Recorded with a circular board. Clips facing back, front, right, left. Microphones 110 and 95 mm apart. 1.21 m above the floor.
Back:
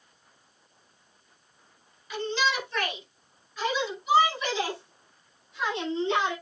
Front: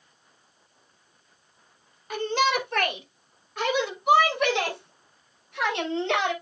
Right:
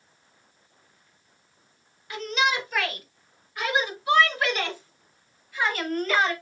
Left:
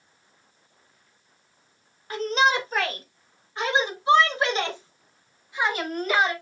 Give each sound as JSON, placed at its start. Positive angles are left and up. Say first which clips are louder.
{"t": 2.1, "sound": "a shout", "louder": "front 4 dB, left 4 dB", "azimuth_deg": 40, "distance_m": 4.0}